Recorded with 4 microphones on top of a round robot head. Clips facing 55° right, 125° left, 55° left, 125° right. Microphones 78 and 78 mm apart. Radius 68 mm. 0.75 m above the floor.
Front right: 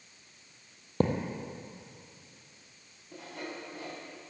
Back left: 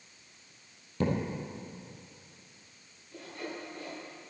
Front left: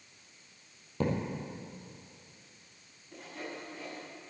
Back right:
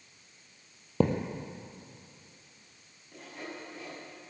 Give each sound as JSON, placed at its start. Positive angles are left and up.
{"t": 1.0, "sound": "a thud", "azimuth_deg": -110, "distance_m": 2.0}
{"t": 3.1, "sound": "sawing", "azimuth_deg": -35, "distance_m": 7.0}